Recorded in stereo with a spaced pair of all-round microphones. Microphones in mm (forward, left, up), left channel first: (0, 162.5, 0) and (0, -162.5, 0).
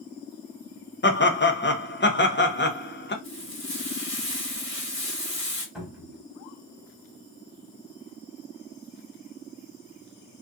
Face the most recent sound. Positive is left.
turn(degrees=-5)  # may be behind; listen again after turning